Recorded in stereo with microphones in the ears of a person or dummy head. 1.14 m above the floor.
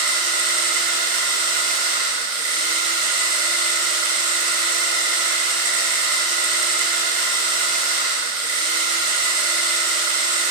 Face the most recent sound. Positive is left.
turn(degrees=-50)  # may be behind; listen again after turning